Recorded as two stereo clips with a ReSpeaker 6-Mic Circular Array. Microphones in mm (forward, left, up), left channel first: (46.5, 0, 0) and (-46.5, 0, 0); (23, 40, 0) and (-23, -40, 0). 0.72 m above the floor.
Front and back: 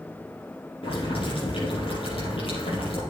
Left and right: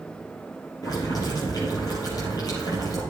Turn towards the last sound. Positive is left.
turn(degrees=10)